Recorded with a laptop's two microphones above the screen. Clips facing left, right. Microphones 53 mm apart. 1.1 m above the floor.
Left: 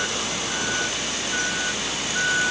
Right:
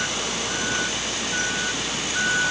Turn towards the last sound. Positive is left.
No sound to turn to.